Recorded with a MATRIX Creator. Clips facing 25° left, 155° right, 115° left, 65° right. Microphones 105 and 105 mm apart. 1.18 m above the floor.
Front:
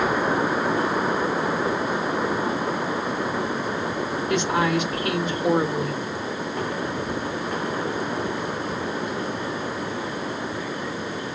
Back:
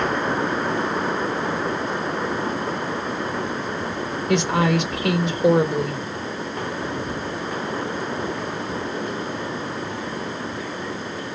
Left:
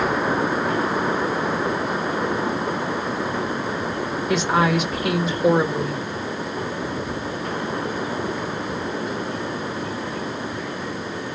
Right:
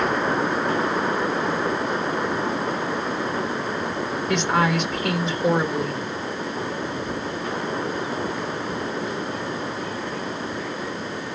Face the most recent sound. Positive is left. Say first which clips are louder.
# back 3 dB, left 2 dB
turn(degrees=-160)